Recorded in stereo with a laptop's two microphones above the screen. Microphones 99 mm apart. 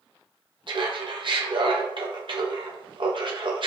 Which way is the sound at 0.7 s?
55° right (ahead or behind).